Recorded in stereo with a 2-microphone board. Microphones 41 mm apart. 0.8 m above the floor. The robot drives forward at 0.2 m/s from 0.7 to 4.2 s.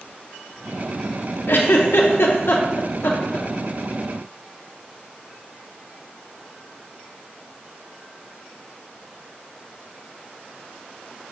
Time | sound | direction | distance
1.5 | a giggle | 70° left (ahead or behind) | 0.6 m